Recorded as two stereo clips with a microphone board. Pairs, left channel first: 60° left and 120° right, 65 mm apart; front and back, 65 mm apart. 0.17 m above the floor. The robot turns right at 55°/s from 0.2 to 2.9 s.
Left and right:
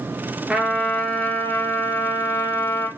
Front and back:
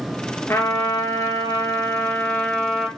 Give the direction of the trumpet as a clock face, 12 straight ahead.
2 o'clock.